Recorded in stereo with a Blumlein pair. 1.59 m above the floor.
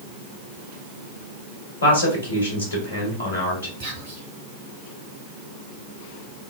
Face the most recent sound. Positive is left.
turn(degrees=-65)